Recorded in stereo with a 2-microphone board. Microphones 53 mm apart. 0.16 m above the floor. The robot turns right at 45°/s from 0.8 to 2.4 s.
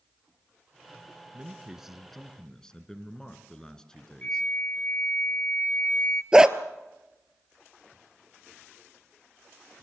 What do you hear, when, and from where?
1.3 s a man speaking: 30° right, 2 m; by 4.5 s 20° left, 2 m
4.2 s a flute: 30° left (ahead or behind), 1.2 m
6.3 s a dog barking: 15° right (ahead or behind), 1.0 m